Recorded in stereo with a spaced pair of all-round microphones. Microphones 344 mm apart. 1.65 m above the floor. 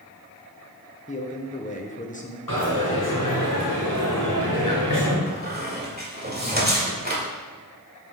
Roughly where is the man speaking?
Left.